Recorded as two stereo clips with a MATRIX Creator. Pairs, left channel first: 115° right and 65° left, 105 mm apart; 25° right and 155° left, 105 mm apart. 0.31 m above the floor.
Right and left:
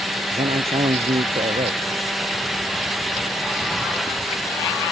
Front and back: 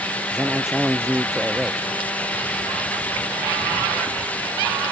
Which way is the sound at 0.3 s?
75° left.